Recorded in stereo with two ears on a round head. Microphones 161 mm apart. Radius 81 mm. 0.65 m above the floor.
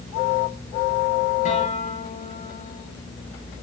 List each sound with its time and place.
1.4 s a guitar: 45° left (ahead or behind), 7 m